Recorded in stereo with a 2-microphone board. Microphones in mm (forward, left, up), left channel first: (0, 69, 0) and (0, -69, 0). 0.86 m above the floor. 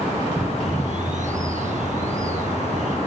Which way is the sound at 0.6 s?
60° right (ahead or behind).